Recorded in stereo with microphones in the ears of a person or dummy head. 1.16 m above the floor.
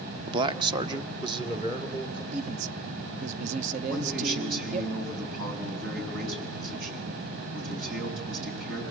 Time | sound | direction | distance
0.3 | a man speaking | 30° right (ahead or behind) | 0.7 m
2.3 | a man speaking | 50° right (ahead or behind) | 0.6 m
3.9 | a man speaking | 75° right (ahead or behind) | 7.5 m